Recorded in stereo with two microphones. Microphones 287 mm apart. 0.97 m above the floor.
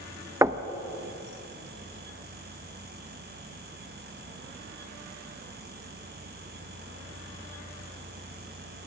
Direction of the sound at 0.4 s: 10° right (ahead or behind).